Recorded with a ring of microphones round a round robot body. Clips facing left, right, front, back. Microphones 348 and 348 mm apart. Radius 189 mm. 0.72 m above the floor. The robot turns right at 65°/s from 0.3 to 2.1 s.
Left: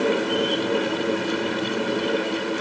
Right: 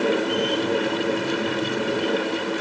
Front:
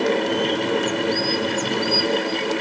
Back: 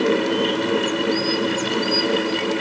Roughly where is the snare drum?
I don't hear a snare drum.